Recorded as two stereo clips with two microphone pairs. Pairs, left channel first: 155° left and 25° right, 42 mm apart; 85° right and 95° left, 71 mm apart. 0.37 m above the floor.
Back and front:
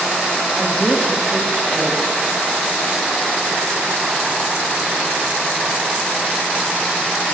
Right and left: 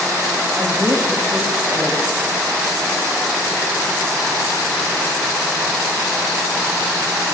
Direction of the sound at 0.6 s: 35° left.